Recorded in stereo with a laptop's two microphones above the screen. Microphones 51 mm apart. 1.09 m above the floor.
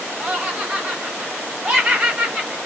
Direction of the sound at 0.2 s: 25° right (ahead or behind).